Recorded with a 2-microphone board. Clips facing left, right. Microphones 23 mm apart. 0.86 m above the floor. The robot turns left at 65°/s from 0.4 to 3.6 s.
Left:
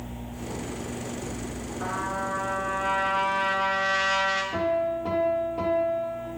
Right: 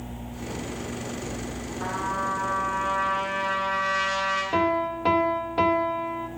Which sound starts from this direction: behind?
A trumpet, at 1.8 s.